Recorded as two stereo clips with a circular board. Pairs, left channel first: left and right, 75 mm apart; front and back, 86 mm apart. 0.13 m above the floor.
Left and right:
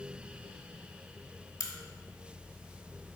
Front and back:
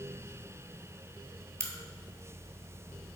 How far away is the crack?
About 0.7 m.